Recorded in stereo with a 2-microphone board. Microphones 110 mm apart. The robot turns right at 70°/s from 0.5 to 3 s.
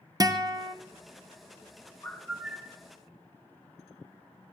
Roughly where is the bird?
Behind.